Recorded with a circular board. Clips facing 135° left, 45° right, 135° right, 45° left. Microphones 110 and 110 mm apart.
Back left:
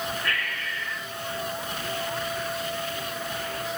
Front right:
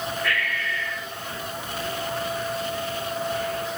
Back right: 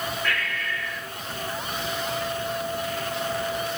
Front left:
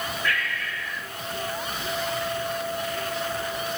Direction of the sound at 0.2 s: 165° right.